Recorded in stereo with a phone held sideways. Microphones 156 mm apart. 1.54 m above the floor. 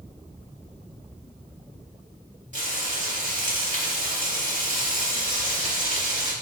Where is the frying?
50° right (ahead or behind), 3.5 m.